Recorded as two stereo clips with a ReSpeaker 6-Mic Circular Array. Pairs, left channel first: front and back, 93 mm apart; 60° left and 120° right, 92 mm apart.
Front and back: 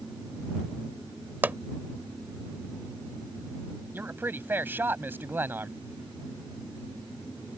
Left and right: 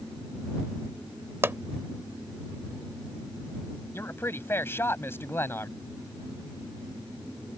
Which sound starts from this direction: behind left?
A man speaking, at 3.9 s.